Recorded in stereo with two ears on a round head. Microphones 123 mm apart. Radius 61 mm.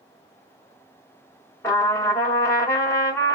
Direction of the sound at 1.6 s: 20° left (ahead or behind).